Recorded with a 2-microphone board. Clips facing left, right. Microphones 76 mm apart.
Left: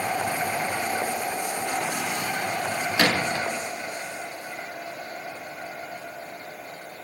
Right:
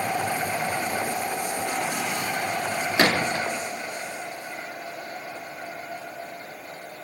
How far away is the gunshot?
About 0.5 m.